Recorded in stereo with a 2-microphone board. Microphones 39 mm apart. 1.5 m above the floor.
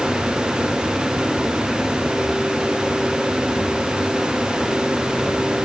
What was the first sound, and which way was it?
Only background noise.